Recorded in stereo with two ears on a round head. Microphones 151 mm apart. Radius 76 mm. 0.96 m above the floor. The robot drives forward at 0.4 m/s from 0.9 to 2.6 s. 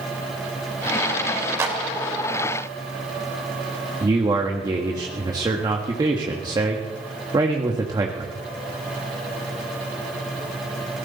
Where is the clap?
15° right (ahead or behind), 3.5 m.